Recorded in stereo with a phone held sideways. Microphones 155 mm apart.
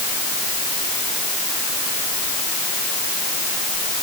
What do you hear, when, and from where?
Only background noise.